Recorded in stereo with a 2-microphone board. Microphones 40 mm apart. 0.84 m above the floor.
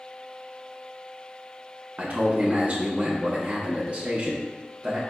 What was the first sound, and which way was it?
A man speaking, 35° right (ahead or behind).